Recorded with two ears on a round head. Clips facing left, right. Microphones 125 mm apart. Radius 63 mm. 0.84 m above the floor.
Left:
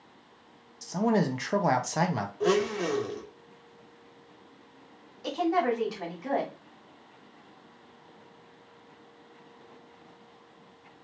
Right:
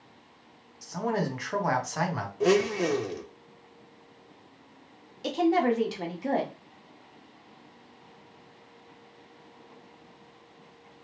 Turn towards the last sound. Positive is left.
turn(degrees=-30)  # may be behind; listen again after turning